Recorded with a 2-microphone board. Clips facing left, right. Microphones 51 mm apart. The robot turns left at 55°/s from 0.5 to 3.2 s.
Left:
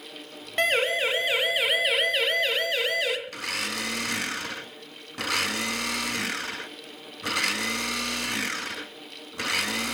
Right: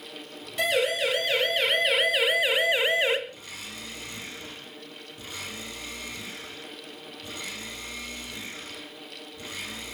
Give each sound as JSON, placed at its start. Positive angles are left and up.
{"t": 0.6, "sound": "a siren", "side_deg": 45, "distance_m": 3.0}
{"t": 3.3, "sound": "a blender", "side_deg": 85, "distance_m": 1.3}